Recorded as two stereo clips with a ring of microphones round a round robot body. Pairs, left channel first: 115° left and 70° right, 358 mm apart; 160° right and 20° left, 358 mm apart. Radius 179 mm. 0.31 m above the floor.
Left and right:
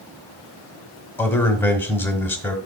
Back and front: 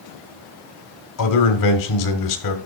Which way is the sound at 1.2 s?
165° right.